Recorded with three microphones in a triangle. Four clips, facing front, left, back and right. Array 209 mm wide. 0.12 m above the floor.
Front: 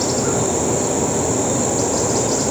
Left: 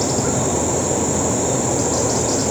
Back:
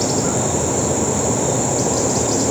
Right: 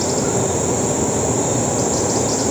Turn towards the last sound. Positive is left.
No sound to turn to.